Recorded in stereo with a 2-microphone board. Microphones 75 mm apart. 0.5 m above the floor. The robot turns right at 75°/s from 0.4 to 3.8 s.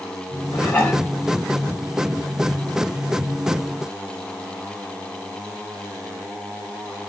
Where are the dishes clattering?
145° left, 3.5 m; by 1.0 s straight behind, 3.5 m.